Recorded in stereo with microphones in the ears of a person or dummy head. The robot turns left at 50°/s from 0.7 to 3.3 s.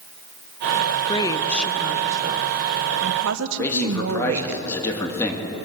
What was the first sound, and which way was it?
A woman speaking, 35° left.